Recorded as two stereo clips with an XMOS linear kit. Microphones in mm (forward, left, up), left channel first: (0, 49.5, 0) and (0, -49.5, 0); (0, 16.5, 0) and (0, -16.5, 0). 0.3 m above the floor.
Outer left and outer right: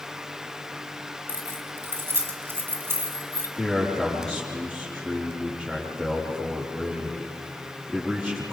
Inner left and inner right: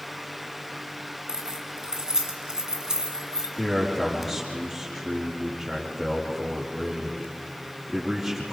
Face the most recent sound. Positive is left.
turn(degrees=5)  # may be behind; listen again after turning